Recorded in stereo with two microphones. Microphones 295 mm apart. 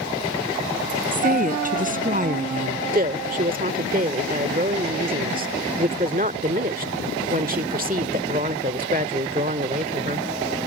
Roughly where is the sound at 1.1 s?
Right.